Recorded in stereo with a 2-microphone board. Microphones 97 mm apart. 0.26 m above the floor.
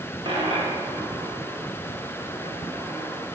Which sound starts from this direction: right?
A dropped coin, at 0.2 s.